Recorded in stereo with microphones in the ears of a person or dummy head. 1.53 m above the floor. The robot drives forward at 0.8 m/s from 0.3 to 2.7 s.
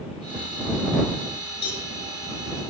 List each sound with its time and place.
1.6 s a cowbell: 55° left (ahead or behind), 7.5 m; by 1.9 s 60° left (ahead or behind), 7.5 m